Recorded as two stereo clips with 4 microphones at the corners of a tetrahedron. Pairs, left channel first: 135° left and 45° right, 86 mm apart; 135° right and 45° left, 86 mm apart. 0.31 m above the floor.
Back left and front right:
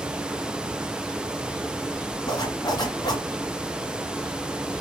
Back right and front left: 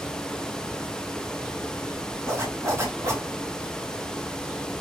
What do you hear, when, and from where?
2.3 s a zipper: 100° left, 1.3 m